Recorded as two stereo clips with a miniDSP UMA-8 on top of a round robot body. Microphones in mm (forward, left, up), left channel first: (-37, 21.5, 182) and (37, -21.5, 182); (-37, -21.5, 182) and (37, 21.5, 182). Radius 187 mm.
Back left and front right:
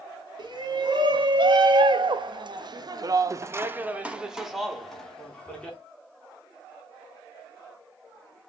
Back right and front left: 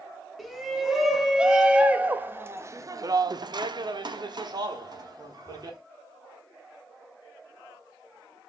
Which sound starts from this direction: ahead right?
A shout, at 0.4 s.